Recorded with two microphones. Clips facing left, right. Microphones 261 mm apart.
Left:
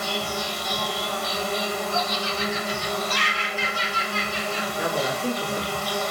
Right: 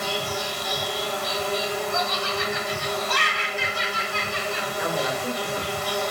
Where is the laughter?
60° right (ahead or behind), 0.6 m.